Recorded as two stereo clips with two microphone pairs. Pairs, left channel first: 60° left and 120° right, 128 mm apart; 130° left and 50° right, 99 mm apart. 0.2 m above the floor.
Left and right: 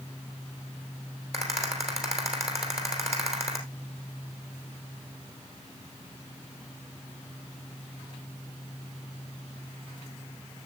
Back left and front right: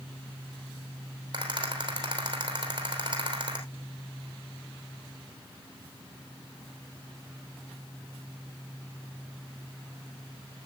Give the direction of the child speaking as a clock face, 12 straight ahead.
I don't hear a child speaking.